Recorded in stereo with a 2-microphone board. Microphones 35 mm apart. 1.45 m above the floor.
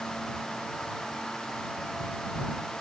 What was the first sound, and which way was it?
Only background noise.